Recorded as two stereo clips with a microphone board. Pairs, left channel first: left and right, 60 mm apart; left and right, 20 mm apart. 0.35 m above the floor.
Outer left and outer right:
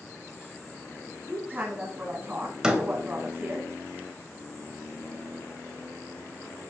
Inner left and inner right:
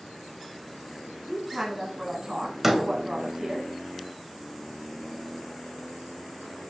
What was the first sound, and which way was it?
A woman speaking, 25° right (ahead or behind).